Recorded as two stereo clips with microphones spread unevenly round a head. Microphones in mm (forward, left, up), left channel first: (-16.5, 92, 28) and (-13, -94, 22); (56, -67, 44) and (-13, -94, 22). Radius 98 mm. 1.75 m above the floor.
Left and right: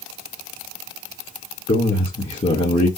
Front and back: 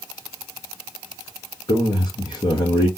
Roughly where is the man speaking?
Ahead left.